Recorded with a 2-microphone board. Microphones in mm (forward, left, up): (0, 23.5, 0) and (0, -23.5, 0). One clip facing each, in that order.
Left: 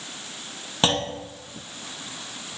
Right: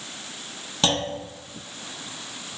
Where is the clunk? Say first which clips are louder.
Left 1 dB; 25° left (ahead or behind), 0.7 m.